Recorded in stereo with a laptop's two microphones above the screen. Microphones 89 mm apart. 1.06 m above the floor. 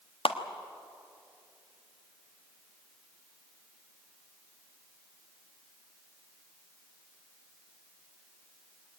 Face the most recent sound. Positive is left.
turn(degrees=85)